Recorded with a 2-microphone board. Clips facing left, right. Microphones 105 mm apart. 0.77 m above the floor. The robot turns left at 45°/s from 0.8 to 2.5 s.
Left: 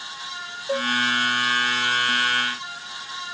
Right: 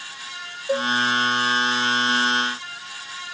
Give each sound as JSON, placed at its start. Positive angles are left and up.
{"t": 0.7, "sound": "a cowbell", "side_deg": -10, "distance_m": 0.7}